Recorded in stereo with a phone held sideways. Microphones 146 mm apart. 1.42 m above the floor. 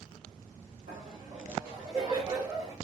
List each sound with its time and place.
0.9 s laughter: 75° right (ahead or behind), 1.2 m; by 2.7 s 25° right (ahead or behind), 1.7 m